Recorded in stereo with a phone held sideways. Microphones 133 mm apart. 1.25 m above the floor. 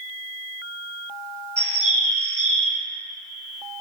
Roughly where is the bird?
Right.